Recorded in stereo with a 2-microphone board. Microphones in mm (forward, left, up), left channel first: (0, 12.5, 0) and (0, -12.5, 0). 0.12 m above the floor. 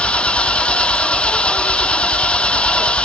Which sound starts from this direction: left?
An engine running, at 0.0 s.